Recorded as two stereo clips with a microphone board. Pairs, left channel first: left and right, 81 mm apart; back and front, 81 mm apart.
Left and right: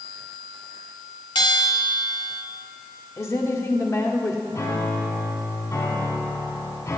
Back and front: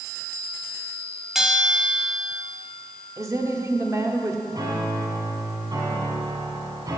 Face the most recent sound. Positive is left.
turn(degrees=40)